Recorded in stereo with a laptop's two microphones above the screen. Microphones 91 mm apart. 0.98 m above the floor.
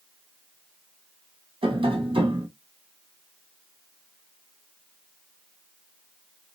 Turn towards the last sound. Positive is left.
turn(degrees=-75)  # may be behind; listen again after turning